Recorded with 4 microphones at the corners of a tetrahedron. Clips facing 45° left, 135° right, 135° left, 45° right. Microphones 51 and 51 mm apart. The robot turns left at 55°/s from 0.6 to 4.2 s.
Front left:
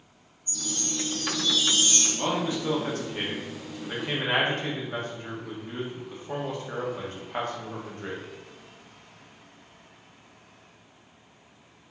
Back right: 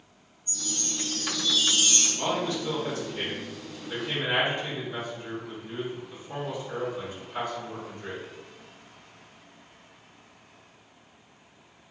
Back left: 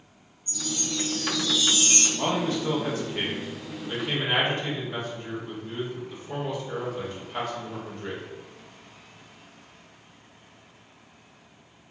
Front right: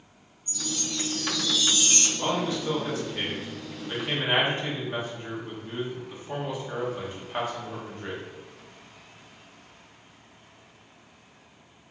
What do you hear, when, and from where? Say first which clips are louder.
0.5 s a chime: front left 2 dB, back left 2 dB; 110° right, 1.3 m; by 2.1 s 170° left, 1.3 m
2.2 s a man speaking: front left 1 dB, back left 1 dB; 130° left, 1.0 m; by 8.2 s 20° left, 1.0 m